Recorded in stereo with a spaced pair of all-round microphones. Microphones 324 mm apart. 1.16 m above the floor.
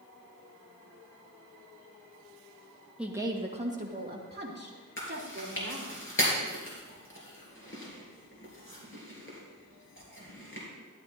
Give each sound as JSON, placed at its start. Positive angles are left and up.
{"t": 3.0, "sound": "a woman speaking", "side_deg": -5, "distance_m": 1.0}
{"t": 5.0, "sound": "chewing", "side_deg": 40, "distance_m": 3.5}